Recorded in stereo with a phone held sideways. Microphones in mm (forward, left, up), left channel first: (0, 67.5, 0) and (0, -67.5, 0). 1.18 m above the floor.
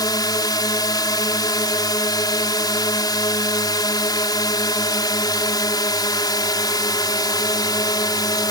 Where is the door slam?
No door slam in this recording.